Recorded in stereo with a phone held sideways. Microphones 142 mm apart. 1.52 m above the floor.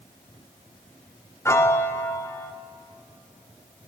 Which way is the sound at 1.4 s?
20° left (ahead or behind).